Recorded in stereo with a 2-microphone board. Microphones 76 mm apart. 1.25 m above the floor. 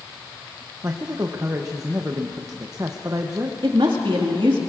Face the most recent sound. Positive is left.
turn(degrees=-75)  # may be behind; listen again after turning